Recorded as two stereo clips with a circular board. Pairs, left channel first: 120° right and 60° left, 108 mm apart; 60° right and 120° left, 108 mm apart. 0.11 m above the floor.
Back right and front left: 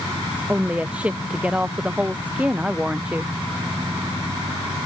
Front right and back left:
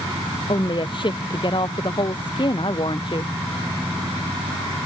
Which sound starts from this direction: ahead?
A woman speaking, at 0.5 s.